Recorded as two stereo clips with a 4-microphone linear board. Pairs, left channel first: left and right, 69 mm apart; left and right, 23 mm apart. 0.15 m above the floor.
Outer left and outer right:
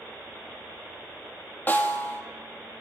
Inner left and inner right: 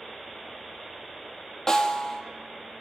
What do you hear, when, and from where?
1.7 s a snare drum: 25° left (ahead or behind), 1.2 m